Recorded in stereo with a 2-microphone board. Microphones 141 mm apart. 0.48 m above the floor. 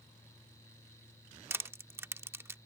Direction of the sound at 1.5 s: 15° right (ahead or behind).